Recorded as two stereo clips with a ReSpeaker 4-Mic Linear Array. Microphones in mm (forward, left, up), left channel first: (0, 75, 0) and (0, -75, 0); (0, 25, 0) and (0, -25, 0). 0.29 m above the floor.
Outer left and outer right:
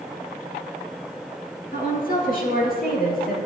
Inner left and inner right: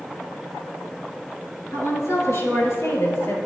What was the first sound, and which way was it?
A woman speaking, 60° left (ahead or behind).